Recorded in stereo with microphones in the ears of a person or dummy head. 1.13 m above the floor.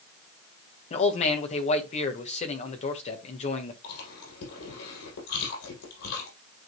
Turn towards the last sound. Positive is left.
turn(degrees=80)